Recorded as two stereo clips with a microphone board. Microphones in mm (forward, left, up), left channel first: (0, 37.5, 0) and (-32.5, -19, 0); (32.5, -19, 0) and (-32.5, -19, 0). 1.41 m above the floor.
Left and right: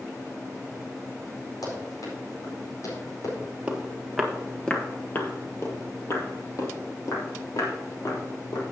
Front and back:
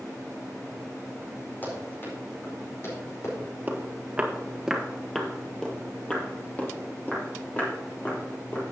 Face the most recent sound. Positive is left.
turn(degrees=55)